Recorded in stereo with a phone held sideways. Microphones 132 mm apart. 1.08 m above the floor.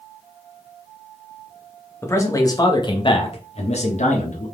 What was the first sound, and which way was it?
A man speaking, 20° left (ahead or behind).